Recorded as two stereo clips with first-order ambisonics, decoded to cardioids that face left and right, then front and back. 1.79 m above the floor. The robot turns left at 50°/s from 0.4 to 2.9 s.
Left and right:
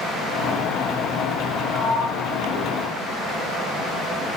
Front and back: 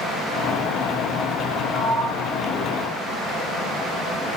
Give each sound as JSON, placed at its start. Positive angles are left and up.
{"t": 1.7, "sound": "a sliding door", "azimuth_deg": -25, "distance_m": 4.5}